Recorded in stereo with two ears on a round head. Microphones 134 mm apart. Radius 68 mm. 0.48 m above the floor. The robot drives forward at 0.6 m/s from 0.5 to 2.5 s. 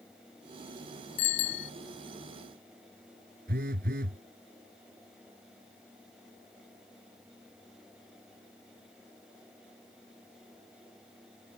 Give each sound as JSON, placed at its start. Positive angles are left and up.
{"t": 1.2, "sound": "a bicycle bell", "side_deg": 65}
{"t": 3.5, "sound": "a phone buzzing", "side_deg": -65}